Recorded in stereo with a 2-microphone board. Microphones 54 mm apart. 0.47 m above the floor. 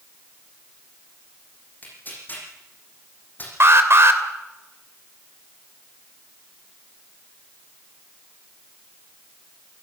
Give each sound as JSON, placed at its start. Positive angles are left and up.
{"t": 1.8, "sound": "tearing paper", "side_deg": 35, "distance_m": 8.5}
{"t": 3.6, "sound": "an alarm", "side_deg": -50, "distance_m": 2.5}